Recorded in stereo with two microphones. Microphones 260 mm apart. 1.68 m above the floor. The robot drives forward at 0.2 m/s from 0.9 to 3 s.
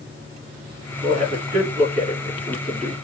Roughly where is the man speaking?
Right.